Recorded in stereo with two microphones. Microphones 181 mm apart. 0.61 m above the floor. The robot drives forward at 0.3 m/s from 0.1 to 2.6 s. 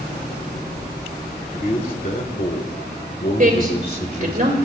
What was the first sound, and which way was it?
A man speaking, 50° left (ahead or behind).